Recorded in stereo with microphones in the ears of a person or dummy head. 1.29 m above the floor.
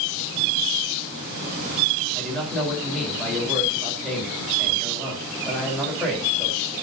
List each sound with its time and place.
2.1 s a man speaking: 5° left (ahead or behind), 4.5 m